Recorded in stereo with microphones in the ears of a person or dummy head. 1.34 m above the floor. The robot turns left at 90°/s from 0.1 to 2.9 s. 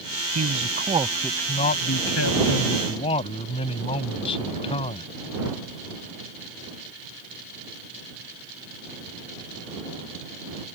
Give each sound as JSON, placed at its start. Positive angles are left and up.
{"t": 0.3, "sound": "a man speaking", "azimuth_deg": -100}